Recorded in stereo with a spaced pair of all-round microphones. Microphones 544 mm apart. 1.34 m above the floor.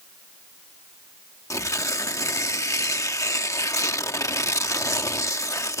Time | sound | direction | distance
1.5 | tearing paper | 5° left (ahead or behind) | ?